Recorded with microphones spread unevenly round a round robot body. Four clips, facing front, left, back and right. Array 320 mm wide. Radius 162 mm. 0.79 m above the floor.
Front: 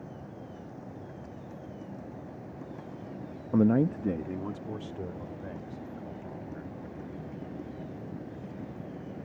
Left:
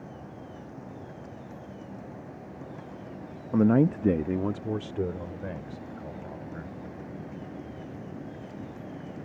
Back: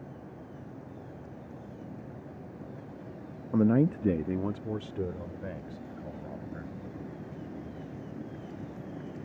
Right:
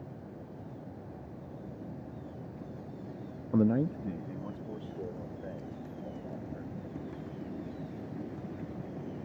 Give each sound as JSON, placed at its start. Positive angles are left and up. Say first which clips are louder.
{"t": 3.5, "sound": "a man speaking", "louder": "left 6 dB, even", "azimuth_deg": 25}